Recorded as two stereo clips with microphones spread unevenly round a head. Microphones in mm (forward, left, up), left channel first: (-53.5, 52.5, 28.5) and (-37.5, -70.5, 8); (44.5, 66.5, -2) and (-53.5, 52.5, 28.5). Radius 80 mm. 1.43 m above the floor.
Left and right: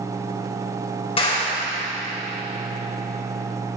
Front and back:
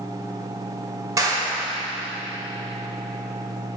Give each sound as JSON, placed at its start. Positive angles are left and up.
{"t": 1.2, "sound": "a clap", "azimuth_deg": 135, "distance_m": 4.5}